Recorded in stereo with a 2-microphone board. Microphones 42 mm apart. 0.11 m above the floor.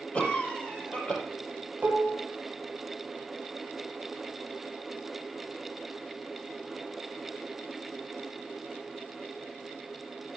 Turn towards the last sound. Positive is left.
turn(degrees=-40)  # may be behind; listen again after turning